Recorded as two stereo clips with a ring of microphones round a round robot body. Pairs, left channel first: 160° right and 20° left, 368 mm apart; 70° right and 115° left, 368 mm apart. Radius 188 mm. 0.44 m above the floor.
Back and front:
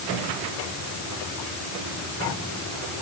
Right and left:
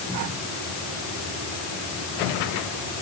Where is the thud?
No thud in this recording.